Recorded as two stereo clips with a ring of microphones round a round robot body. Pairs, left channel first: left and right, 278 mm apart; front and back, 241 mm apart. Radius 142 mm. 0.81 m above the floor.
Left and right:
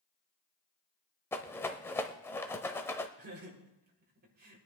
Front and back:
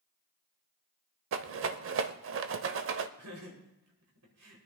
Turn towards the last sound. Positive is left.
turn(degrees=-145)